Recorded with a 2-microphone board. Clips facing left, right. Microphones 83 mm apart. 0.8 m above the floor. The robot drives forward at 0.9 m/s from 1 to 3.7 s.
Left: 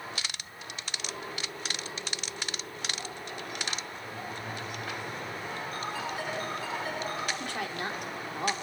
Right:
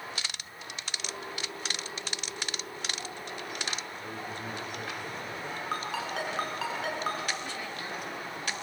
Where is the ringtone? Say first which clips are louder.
Right 3 dB; 85° right, 4.5 m.